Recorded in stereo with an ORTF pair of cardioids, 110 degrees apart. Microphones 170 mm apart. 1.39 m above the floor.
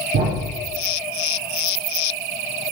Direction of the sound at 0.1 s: 70° right.